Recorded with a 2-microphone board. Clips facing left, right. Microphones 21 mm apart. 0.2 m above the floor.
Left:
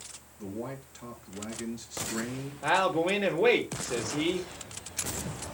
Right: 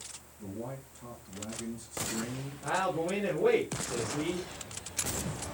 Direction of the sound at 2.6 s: 75° left (ahead or behind).